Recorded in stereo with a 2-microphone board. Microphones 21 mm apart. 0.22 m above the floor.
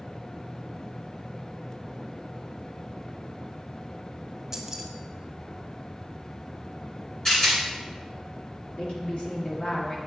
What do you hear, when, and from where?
4.5 s keys jangling: 20° right (ahead or behind), 0.6 m
7.2 s a rattle: 30° left (ahead or behind), 1.8 m
8.8 s a woman speaking: 55° left (ahead or behind), 1.7 m